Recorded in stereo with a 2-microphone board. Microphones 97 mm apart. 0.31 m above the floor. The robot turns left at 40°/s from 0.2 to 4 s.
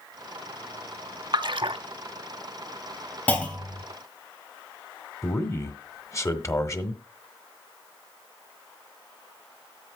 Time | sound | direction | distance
1.3 | a splash | 50° right (ahead or behind) | 0.5 m
3.3 | a clunk | 15° left (ahead or behind) | 2 m
5.2 | a man speaking | 30° left (ahead or behind) | 1.3 m